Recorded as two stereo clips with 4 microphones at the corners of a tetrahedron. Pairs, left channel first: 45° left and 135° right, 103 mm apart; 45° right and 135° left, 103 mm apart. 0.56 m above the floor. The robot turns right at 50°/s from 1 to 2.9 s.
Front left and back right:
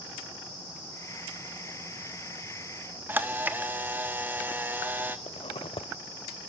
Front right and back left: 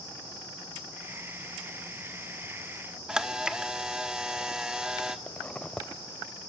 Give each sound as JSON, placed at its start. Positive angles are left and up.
{"t": 3.1, "sound": "a camera shutter", "azimuth_deg": -155, "distance_m": 1.2}
{"t": 5.3, "sound": "a zipper", "azimuth_deg": 35, "distance_m": 0.6}